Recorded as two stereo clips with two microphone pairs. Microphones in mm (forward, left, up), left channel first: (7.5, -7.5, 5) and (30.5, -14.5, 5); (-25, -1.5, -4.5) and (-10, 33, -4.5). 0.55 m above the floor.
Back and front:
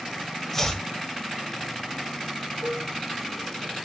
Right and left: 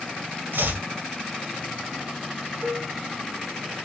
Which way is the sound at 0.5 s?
90° left.